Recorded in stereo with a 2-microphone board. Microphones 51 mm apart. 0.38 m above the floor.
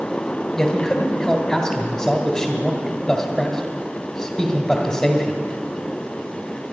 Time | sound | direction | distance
0.6 | a man speaking | 10° left (ahead or behind) | 1.6 m